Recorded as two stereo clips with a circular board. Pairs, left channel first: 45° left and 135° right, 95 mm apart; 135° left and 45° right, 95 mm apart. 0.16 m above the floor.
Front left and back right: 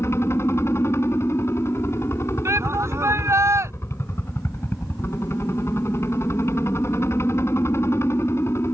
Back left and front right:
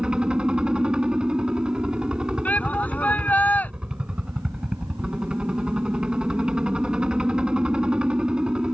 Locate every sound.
0.0 s a helicopter: 25° left
2.5 s a shout: 165° right